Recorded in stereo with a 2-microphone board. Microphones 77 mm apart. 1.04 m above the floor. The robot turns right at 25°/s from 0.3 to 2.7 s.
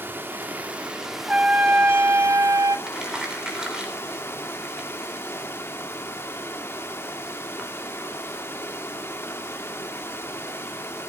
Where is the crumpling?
10° right (ahead or behind), 3.5 m.